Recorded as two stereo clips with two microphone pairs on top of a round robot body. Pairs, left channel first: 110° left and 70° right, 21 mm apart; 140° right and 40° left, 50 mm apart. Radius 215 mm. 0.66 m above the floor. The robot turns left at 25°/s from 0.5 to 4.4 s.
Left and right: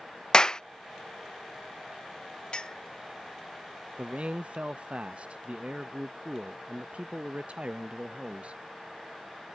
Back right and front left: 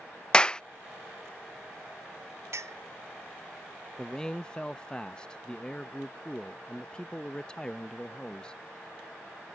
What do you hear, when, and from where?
0.3 s a clap: 145° left
2.5 s a clink: 60° left; by 2.8 s 55° left
4.0 s a man speaking: 55° right; by 8.6 s 65° right